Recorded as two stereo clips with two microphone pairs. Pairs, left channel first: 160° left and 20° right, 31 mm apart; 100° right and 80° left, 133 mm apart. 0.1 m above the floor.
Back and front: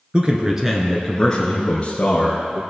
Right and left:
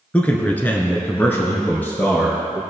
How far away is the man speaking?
About 1.4 m.